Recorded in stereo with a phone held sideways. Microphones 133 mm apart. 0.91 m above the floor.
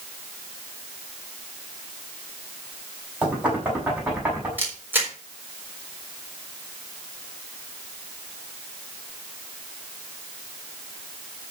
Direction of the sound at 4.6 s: 15° right (ahead or behind).